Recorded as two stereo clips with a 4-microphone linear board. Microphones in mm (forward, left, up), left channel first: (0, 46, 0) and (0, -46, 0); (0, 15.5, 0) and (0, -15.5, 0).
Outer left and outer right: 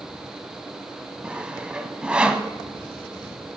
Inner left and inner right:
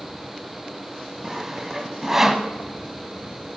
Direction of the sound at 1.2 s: 10° right (ahead or behind).